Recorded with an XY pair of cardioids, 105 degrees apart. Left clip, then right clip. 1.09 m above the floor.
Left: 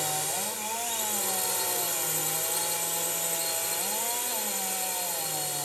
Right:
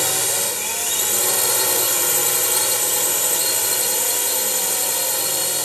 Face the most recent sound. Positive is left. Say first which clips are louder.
# right 9 dB
turn(degrees=-65)